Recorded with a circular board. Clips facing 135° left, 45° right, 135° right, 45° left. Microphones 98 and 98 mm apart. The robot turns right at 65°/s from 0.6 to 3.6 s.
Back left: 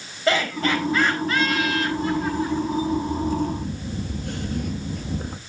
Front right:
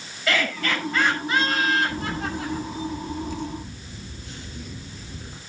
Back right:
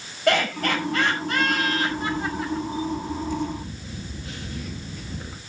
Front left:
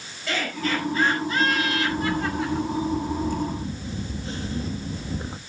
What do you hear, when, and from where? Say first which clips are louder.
0.3 s laughter: back left 4 dB, back right 5 dB; 165° right, 6 m; by 2.7 s 35° right, 6 m
1.9 s a camera shutter: back left 5 dB, front left 2 dB; 10° right, 1.8 m; by 5.4 s 105° left, 1.8 m